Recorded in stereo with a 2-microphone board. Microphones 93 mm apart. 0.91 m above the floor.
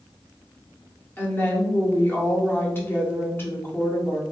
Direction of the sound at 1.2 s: 25° left (ahead or behind).